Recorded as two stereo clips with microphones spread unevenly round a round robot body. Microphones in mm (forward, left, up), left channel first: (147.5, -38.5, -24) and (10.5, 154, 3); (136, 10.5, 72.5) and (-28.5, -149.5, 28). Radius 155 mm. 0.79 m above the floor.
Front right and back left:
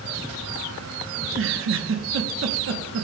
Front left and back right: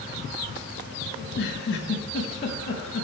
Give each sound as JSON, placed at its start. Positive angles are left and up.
{"t": 1.2, "sound": "a giggle", "azimuth_deg": 95, "distance_m": 1.2}